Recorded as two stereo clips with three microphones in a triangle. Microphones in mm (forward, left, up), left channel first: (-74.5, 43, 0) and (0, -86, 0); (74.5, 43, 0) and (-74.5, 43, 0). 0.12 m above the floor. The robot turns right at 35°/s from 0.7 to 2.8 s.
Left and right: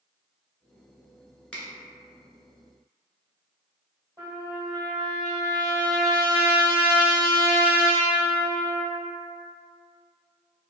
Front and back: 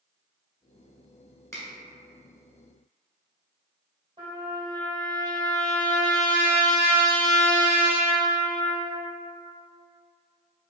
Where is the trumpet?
125° right, 1.9 m.